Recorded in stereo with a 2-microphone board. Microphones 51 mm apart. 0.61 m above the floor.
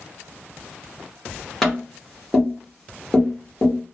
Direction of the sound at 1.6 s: 5° left (ahead or behind).